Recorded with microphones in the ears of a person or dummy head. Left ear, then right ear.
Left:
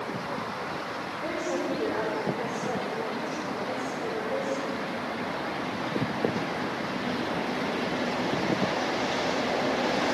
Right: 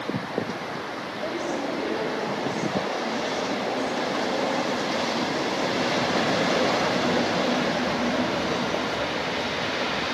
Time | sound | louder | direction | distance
1.2 | a woman speaking | right 2 dB | 55° left (ahead or behind) | 5 m